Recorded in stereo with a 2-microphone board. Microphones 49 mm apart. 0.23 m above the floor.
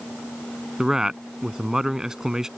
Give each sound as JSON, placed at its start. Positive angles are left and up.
{"t": 0.8, "sound": "a man speaking", "side_deg": -10}